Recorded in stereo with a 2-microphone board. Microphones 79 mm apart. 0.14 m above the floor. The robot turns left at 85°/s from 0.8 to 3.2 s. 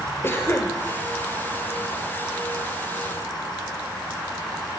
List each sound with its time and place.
0.2 s a cough: 30° left (ahead or behind), 2.5 m